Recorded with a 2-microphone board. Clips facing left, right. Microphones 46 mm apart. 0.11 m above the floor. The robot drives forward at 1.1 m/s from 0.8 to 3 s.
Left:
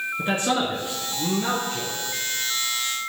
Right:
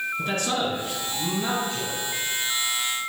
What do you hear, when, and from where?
0.2 s a man speaking: 25° left (ahead or behind), 1.6 m; by 1.9 s 20° left (ahead or behind), 2.5 m